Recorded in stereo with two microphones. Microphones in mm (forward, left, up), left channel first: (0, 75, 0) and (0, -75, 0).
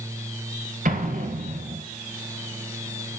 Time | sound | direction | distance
0.8 | an explosion | 70° right (ahead or behind) | 3.5 m